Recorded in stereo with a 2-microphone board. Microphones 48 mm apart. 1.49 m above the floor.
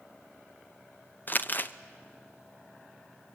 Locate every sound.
1.3 s crumpling: 40° left (ahead or behind), 0.7 m